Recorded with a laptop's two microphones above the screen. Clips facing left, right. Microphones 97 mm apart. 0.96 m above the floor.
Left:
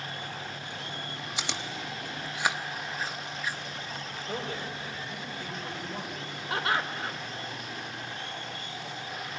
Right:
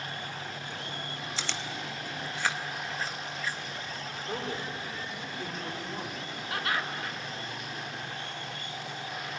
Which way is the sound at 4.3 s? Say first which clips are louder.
Even; 40° right (ahead or behind).